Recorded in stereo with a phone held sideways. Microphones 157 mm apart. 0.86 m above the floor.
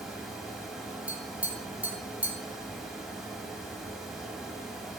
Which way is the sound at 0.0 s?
Centre (ahead or behind).